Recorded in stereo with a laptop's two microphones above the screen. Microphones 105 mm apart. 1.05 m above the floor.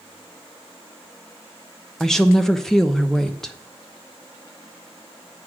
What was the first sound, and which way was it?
A woman speaking, 5° left (ahead or behind).